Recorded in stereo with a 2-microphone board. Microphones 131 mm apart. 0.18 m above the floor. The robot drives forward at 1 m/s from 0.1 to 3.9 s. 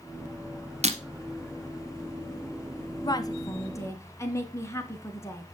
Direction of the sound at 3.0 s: 30° left (ahead or behind).